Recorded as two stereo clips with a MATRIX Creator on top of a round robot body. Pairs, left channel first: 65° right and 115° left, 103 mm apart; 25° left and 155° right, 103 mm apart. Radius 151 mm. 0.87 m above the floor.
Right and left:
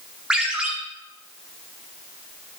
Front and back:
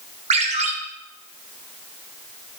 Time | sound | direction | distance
0.3 | a ringtone | 165° right | 1.1 m